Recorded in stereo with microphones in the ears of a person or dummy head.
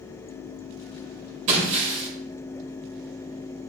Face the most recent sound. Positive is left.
turn(degrees=-40)  # may be behind; listen again after turning